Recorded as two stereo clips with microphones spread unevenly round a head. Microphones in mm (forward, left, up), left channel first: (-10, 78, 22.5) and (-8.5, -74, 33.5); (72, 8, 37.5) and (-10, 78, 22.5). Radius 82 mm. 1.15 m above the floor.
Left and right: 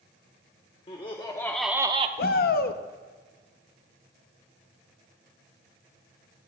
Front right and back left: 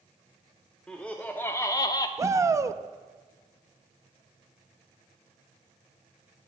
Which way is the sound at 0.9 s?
45° left.